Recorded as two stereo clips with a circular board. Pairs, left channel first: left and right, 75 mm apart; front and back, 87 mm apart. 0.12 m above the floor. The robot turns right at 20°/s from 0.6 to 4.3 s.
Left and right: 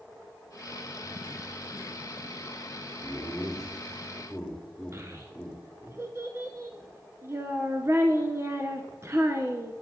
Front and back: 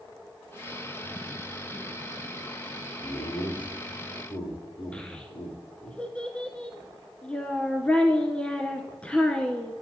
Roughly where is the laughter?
Ahead.